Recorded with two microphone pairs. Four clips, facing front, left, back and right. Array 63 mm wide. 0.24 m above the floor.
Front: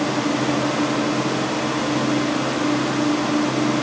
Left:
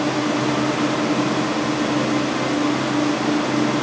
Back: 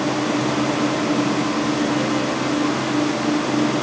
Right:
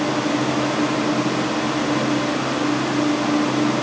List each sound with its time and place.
Only background noise.